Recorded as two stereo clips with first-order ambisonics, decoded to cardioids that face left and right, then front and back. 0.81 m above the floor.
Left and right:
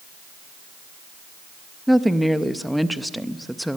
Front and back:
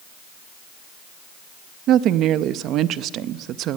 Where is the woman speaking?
Straight behind, 0.6 m.